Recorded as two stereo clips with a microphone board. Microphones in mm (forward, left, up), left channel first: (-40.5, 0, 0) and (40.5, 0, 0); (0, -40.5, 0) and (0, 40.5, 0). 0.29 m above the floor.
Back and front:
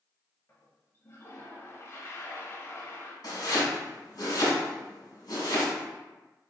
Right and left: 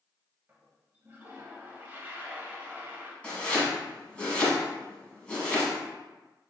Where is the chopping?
165° right, 1.4 m.